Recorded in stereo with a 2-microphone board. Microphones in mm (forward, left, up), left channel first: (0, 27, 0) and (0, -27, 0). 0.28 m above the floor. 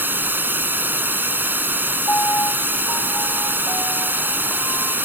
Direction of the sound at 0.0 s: 40° right (ahead or behind).